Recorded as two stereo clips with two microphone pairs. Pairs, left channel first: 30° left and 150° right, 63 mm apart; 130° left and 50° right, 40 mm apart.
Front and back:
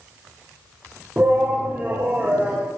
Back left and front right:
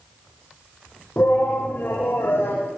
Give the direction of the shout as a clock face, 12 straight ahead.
7 o'clock.